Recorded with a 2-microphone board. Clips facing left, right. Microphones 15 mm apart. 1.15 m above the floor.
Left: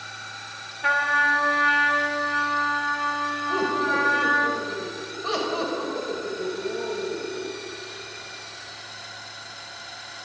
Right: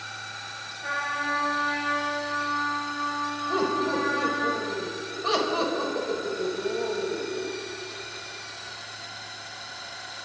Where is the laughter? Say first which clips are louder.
Left 2 dB; 5° right (ahead or behind), 6.5 m.